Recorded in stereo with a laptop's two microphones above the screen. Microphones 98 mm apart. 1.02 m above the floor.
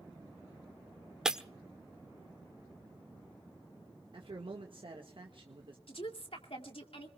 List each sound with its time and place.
1.2 s breaking glass: 5° right (ahead or behind), 1.0 m
4.1 s a man speaking: 60° right (ahead or behind), 1.5 m
5.9 s a woman speaking: 70° left (ahead or behind), 2.5 m